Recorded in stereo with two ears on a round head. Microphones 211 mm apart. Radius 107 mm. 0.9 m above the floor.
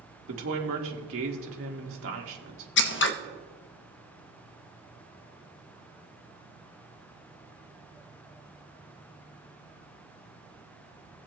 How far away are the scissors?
About 0.7 m.